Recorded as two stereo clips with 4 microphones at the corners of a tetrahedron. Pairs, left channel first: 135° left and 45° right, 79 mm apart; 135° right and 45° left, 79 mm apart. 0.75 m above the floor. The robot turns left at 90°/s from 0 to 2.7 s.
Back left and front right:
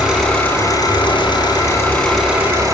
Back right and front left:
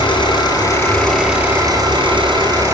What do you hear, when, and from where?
0.0 s an engine running: 125° right, 9 m; by 2.7 s 10° right, 9 m